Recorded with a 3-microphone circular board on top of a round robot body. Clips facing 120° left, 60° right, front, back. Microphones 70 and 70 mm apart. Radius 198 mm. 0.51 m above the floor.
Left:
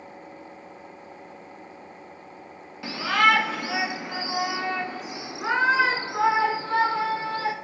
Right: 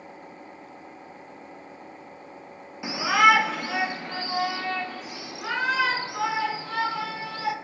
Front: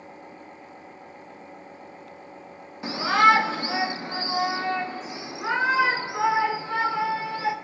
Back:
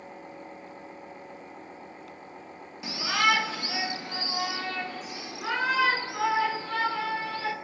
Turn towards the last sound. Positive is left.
turn(degrees=70)